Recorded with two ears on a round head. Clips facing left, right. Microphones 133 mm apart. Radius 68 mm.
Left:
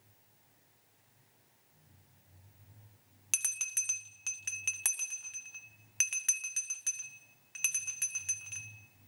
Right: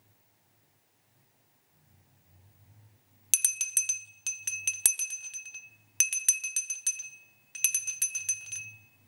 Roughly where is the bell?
Right.